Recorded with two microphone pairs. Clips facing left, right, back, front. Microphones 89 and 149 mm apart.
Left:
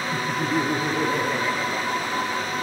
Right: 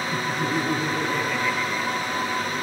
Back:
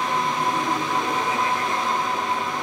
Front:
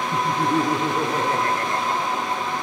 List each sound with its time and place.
0.1 s laughter: 10° left, 3 m; by 2.5 s 45° left, 5 m